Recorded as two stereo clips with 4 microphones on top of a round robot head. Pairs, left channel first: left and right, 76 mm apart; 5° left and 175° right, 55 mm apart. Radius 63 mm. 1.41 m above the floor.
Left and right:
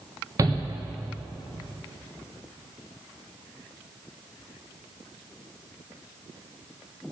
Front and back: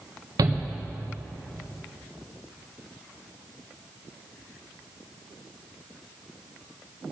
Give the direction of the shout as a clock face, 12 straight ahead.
5 o'clock.